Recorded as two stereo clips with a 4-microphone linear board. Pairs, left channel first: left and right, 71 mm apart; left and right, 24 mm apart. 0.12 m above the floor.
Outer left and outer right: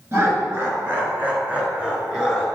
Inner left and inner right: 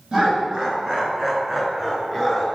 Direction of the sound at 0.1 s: 35° right (ahead or behind).